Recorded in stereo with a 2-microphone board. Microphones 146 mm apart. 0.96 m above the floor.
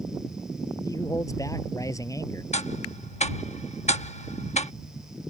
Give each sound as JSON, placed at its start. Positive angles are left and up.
{"t": 0.8, "sound": "a man speaking", "side_deg": 20}
{"t": 2.5, "sound": "ticking", "side_deg": 50}